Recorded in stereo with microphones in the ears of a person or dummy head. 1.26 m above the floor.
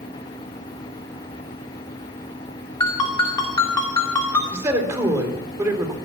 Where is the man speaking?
15° right (ahead or behind), 4 m.